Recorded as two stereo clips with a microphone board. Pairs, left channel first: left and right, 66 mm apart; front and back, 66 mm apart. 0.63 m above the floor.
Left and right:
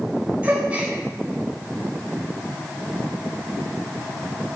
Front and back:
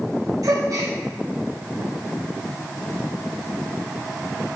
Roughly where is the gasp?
Behind.